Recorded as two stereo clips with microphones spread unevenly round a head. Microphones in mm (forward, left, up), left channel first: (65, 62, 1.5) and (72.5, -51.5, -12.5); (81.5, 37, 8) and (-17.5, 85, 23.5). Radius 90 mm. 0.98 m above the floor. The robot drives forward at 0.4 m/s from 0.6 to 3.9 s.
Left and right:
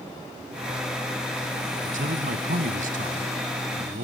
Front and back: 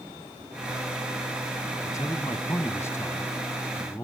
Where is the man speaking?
100° right; by 4.0 s 105° right.